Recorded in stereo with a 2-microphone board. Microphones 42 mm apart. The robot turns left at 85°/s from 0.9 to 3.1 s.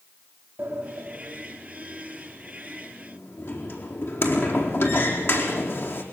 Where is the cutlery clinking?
No cutlery clinking in this recording.